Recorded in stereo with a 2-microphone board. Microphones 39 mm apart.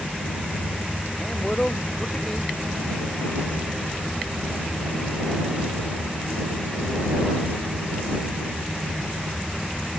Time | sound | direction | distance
1.2 | a man speaking | 25° left (ahead or behind) | ?